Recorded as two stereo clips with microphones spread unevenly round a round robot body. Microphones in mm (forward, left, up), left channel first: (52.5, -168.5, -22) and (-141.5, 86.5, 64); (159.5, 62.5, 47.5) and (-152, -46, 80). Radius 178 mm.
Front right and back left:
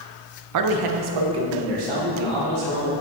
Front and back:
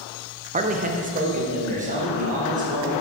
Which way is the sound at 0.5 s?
135° left.